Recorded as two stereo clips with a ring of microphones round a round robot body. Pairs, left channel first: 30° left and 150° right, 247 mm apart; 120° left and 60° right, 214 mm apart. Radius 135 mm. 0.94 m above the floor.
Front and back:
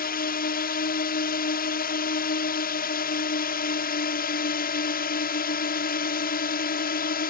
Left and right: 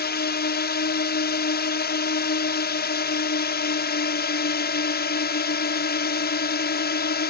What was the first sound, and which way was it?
A drone, 80° left.